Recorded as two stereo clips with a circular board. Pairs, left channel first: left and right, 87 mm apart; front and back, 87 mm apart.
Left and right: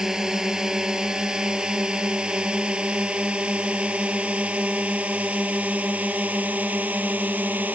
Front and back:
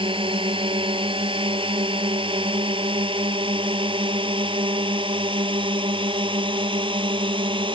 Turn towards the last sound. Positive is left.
turn(degrees=-160)